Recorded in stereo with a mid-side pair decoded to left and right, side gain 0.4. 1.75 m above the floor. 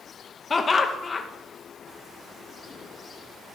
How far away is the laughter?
About 0.9 m.